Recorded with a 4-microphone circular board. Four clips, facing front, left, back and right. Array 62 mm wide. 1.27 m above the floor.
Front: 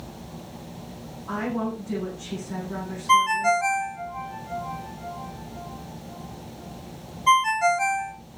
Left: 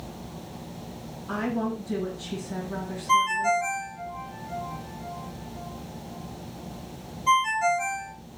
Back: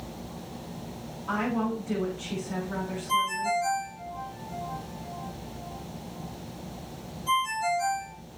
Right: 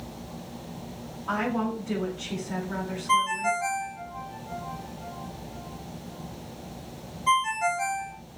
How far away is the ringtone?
About 2.5 m.